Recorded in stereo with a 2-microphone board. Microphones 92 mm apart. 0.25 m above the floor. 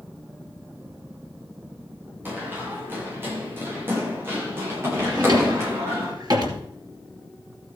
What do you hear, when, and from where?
2.2 s running footsteps: 20° right (ahead or behind), 8 m; by 6.1 s 25° right (ahead or behind), 11.5 m
5.1 s a drawer: 45° right (ahead or behind), 2.5 m